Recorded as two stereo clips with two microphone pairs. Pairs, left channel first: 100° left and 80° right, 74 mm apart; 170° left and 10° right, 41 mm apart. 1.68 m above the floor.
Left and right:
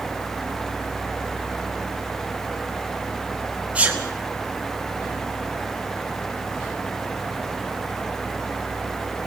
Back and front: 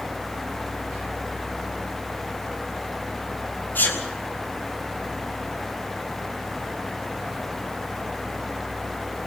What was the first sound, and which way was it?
A sneeze, 150° right.